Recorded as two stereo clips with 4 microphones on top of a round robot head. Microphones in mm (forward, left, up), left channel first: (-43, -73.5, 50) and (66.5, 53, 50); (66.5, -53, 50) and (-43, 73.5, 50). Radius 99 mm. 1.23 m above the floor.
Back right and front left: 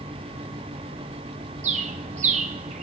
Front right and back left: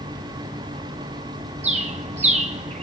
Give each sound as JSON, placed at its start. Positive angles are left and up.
{"t": 1.6, "sound": "a bird", "azimuth_deg": 90, "distance_m": 0.7}